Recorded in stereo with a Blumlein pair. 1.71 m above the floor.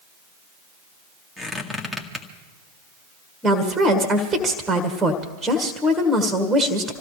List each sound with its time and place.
1.4 s a squeak: 5° left, 1.9 m
3.4 s a woman speaking: 10° right, 1.8 m